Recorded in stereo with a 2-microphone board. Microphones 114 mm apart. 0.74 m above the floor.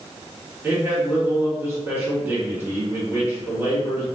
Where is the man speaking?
20° right (ahead or behind), 1.6 m.